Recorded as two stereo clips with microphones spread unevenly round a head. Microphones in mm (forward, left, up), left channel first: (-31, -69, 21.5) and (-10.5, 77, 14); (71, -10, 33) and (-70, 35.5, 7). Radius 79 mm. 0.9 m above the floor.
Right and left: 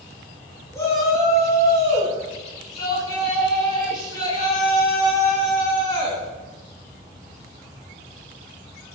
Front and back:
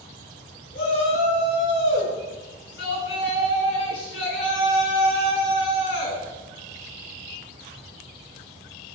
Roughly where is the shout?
Ahead right.